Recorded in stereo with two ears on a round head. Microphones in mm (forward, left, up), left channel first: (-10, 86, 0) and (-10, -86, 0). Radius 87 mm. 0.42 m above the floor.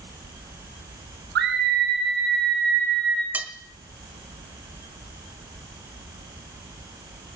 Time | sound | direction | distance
1.4 | a scream | 65° right (ahead or behind) | 7.5 m
3.3 | cutlery clinking | 10° right (ahead or behind) | 1.2 m